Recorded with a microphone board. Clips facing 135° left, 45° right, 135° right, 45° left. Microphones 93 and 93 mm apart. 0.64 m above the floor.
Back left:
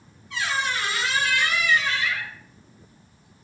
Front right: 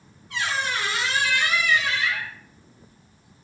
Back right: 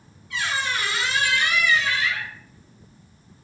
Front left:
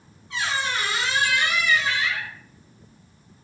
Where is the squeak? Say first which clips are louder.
Even, even; 15° right, 0.9 m.